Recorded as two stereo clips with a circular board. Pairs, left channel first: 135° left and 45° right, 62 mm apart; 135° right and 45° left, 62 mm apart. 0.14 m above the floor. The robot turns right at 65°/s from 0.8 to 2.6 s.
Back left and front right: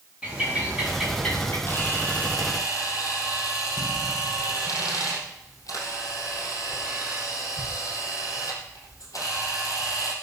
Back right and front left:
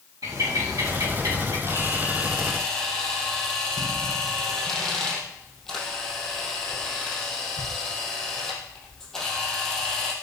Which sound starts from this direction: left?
A camera shutter, at 1.7 s.